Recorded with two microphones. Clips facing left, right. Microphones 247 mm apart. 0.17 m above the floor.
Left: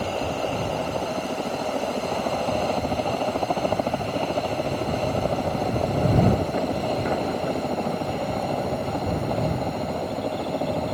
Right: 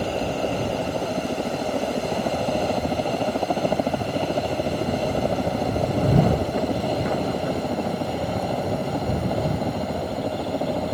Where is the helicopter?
15° right (ahead or behind); by 10.9 s 5° right (ahead or behind).